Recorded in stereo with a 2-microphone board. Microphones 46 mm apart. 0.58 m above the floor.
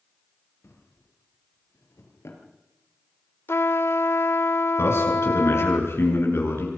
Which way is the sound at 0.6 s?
75° left (ahead or behind).